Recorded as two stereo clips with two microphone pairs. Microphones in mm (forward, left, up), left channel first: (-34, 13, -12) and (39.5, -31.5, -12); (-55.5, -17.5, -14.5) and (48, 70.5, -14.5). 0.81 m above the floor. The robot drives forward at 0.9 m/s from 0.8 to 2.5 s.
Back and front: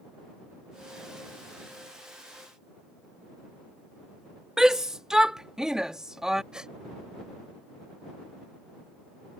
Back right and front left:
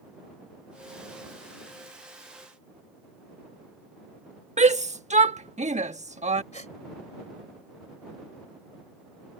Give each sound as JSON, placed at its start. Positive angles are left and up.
{"t": 4.6, "sound": "a shout", "azimuth_deg": 50}
{"t": 6.5, "sound": "a gasp", "azimuth_deg": -110}